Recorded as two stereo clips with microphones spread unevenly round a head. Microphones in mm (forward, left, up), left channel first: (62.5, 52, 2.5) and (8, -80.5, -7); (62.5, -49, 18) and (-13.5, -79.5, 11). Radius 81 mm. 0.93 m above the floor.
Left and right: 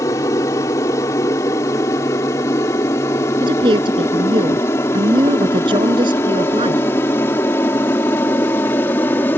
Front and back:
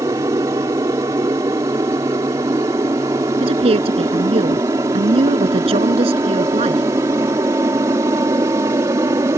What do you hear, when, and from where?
0.0 s an aircraft: 140° left; by 9.4 s 145° left
3.4 s a woman speaking: 175° right